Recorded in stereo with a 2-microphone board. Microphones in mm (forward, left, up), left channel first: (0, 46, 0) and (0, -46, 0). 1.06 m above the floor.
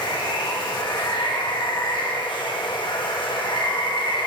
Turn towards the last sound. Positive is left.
turn(degrees=60)  # may be behind; listen again after turning